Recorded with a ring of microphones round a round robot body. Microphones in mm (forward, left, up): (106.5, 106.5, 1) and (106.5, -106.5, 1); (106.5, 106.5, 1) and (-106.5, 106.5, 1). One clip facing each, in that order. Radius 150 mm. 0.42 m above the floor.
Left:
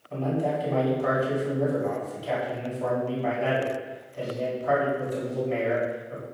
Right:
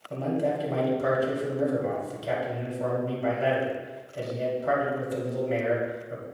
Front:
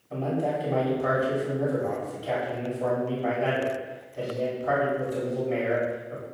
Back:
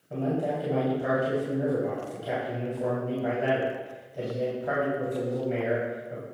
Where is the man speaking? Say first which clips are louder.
Even, even; 105° right, 2.5 m.